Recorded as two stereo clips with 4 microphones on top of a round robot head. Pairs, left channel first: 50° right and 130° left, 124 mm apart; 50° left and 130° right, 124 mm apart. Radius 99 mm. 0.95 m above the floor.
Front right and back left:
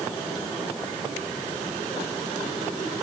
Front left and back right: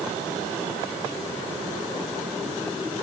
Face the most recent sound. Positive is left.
No sound to turn to.